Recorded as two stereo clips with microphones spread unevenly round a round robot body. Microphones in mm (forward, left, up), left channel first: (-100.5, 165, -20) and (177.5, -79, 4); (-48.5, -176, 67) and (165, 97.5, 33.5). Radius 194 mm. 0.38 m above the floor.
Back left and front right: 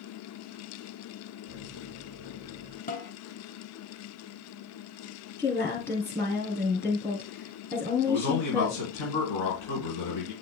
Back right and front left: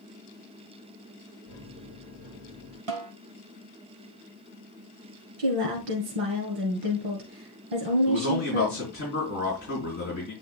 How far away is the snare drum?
About 1.7 m.